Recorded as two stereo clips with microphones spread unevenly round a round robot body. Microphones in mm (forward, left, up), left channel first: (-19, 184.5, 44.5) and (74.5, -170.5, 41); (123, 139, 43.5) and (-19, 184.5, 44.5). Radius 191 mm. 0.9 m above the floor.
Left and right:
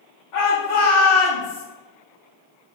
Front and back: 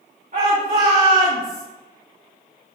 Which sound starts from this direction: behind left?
A shout, at 0.3 s.